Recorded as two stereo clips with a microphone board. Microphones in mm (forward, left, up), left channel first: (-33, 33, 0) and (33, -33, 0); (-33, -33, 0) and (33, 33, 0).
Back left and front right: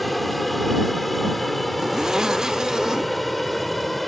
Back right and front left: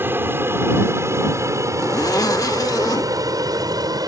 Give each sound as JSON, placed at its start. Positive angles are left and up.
{"t": 0.0, "sound": "an aircraft", "azimuth_deg": 45}
{"t": 1.8, "sound": "a zipper", "azimuth_deg": -125}